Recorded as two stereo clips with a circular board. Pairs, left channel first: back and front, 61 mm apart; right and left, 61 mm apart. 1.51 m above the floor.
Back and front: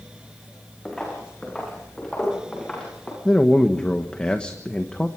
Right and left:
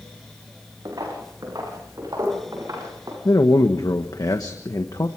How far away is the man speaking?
About 1.4 m.